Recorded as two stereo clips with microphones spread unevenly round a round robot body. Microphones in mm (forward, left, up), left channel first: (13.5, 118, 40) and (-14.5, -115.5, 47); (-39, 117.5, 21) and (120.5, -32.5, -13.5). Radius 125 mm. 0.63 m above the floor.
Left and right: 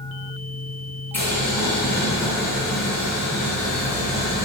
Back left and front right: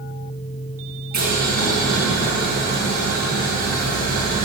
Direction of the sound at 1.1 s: Straight ahead.